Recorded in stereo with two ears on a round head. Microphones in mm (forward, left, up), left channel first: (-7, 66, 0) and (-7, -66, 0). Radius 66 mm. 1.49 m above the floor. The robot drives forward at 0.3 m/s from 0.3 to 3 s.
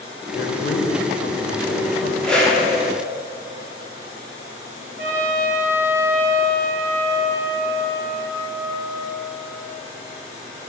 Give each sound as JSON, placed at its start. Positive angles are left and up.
{"t": 0.3, "sound": "a man speaking", "side_deg": 60, "distance_m": 0.9}
{"t": 2.2, "sound": "a whoosh", "side_deg": 5, "distance_m": 1.1}
{"t": 5.0, "sound": "a trumpet", "side_deg": -15, "distance_m": 1.3}